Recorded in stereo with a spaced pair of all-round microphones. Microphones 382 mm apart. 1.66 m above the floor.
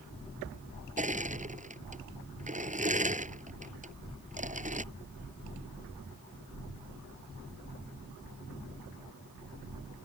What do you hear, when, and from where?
1.0 s crushing: 20° right (ahead or behind)